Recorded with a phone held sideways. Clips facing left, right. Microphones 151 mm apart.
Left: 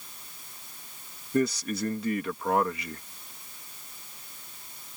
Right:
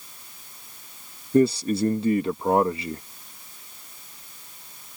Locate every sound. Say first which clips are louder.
1.3 s a man speaking: right 7 dB; 30° right (ahead or behind)